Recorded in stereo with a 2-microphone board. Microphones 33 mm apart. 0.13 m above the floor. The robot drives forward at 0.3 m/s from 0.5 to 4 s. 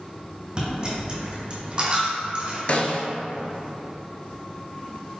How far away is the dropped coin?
About 1.8 m.